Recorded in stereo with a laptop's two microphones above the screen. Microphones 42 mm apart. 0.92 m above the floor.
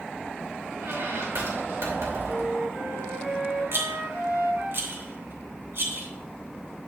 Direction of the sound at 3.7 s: 65° right (ahead or behind).